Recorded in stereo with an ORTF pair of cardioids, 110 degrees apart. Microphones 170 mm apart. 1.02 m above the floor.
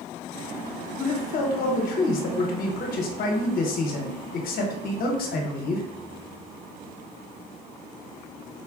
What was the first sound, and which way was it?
A man speaking, 65° left.